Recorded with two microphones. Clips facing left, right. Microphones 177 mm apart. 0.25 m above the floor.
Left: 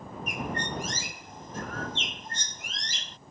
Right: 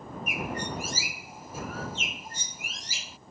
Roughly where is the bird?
Centre.